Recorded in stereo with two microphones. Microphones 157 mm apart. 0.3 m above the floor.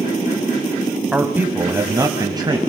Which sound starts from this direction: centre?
A man speaking, at 1.1 s.